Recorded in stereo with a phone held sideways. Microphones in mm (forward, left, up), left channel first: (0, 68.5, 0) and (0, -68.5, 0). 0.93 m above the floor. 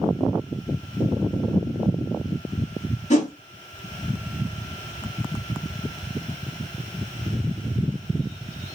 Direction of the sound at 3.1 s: 55° left (ahead or behind).